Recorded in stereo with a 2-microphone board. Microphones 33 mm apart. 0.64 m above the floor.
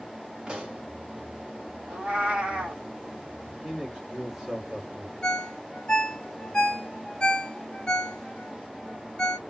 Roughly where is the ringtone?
Left.